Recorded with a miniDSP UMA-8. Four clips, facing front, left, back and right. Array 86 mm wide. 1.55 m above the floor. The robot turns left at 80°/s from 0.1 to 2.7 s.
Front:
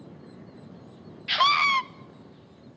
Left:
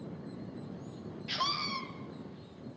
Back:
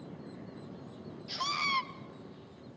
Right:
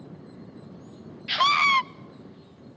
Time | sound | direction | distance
1.3 | a scream | 25° right | 0.8 m